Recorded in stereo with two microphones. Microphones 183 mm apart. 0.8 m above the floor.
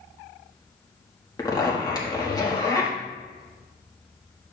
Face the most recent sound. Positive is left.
turn(degrees=20)  # may be behind; listen again after turning